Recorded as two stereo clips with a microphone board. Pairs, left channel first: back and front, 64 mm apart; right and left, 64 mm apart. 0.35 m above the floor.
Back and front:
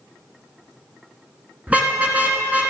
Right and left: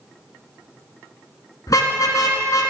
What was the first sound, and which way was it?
A car horn, 70° right.